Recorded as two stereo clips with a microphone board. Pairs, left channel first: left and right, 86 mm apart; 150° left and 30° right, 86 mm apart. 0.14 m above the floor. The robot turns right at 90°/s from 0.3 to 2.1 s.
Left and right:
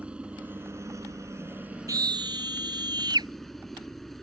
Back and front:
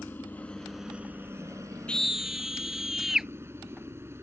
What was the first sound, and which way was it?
A helicopter, 160° right.